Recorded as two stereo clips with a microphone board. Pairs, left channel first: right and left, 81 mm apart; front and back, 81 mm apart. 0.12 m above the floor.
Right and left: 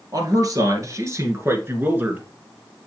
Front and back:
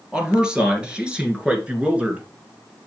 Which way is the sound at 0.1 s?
100° left.